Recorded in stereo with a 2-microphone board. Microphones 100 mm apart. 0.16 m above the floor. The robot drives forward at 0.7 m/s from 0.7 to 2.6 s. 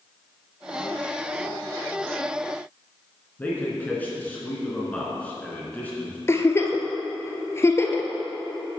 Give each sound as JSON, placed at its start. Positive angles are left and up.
{"t": 3.4, "sound": "a man speaking", "side_deg": 15, "distance_m": 2.5}
{"t": 6.3, "sound": "a giggle", "side_deg": 30, "distance_m": 0.8}